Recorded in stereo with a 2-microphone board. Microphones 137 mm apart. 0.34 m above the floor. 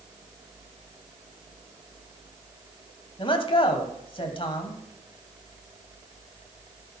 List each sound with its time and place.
3.2 s a man speaking: 40° left (ahead or behind), 1.8 m